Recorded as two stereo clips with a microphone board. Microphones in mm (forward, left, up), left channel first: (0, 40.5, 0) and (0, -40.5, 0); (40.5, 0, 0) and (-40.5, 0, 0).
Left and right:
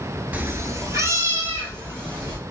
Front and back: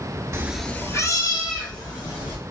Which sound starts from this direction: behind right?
A cat meowing, at 0.3 s.